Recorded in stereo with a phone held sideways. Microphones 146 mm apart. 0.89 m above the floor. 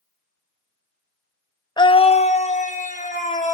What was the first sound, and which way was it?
A scream, 30° left (ahead or behind).